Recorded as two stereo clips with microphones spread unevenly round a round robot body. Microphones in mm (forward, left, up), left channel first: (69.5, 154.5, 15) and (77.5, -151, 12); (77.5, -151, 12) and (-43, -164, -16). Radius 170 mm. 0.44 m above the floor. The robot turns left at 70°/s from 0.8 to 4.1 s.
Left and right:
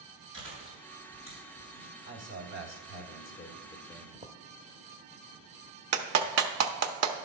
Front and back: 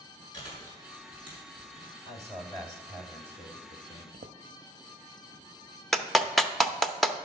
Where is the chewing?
Straight behind, 5 m; by 1.9 s 100° left, 5 m.